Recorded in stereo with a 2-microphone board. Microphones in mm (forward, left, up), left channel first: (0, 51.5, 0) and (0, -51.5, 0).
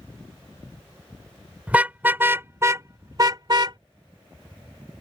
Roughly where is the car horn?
Centre.